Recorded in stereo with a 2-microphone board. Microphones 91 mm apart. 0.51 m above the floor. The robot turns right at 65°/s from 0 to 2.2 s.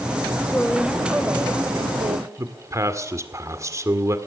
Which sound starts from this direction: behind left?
A woman speaking, at 0.5 s.